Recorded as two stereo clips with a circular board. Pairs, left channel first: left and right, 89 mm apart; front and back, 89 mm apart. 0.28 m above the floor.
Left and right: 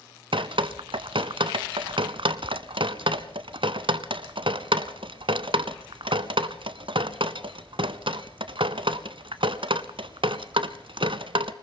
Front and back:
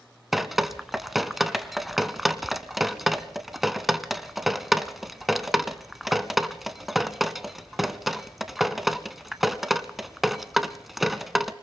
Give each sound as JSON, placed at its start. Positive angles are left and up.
{"t": 0.3, "sound": "dripping", "azimuth_deg": -90, "distance_m": 0.8}